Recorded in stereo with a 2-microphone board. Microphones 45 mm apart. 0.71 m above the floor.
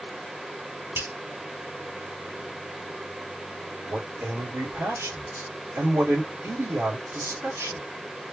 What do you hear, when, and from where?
0.9 s a finger snap: 65° right (ahead or behind), 2.5 m
3.9 s a man speaking: 65° right (ahead or behind), 2.5 m